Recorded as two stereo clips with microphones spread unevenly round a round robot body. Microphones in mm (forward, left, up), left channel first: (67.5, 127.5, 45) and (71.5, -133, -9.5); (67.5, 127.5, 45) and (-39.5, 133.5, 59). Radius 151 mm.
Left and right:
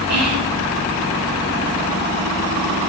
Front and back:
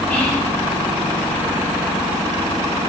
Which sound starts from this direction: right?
Whispering, at 0.1 s.